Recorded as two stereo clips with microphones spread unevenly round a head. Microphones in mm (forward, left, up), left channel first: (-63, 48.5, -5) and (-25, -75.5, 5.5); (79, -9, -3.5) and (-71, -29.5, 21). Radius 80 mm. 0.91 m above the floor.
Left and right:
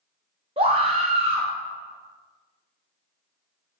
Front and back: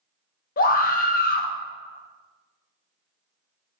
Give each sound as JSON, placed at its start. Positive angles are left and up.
{"t": 0.6, "sound": "a scream", "azimuth_deg": -15, "distance_m": 1.0}